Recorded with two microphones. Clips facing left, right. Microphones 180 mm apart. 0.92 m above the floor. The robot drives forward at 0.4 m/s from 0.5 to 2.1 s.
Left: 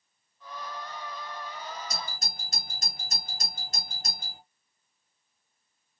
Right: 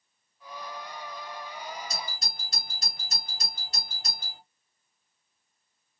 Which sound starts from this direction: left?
A doorbell, at 1.9 s.